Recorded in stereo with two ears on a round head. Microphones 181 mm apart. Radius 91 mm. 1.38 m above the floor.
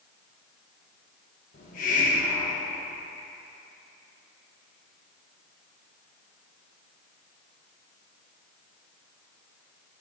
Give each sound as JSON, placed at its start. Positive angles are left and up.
{"t": 1.5, "sound": "a hiss", "side_deg": 40, "distance_m": 0.9}